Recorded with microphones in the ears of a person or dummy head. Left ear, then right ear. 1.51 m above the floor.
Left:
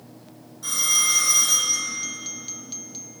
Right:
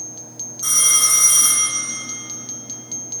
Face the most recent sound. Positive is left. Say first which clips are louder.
# right 4 dB
turn(degrees=-30)  # may be behind; listen again after turning